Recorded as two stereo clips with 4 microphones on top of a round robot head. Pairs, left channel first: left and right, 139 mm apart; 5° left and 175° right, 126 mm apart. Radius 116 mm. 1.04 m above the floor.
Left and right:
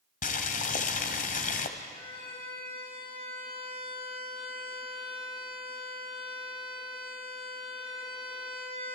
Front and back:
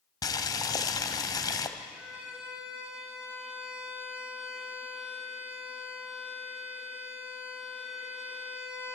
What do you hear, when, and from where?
0.2 s boiling: 65° left, 1.6 m
1.8 s a violin: 105° left, 6.5 m